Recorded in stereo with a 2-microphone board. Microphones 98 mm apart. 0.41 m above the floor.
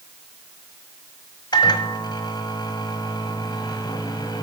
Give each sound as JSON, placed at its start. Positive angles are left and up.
{"t": 1.5, "sound": "a microwave", "side_deg": 50, "distance_m": 1.6}